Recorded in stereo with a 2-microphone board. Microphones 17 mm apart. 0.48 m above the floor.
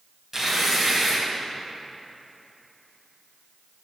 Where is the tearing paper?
20° right (ahead or behind), 3 m.